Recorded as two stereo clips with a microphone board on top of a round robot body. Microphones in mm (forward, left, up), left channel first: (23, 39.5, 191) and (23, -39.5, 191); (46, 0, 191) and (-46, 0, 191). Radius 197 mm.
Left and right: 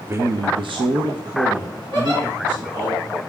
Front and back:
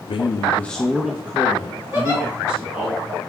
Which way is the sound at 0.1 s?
25° right.